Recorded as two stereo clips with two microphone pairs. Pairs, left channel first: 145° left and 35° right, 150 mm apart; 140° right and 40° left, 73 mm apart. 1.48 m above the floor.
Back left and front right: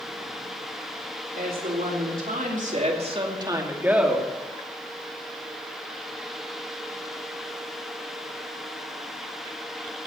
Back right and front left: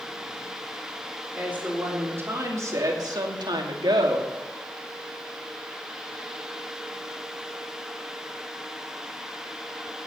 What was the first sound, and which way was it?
A woman speaking, 30° right.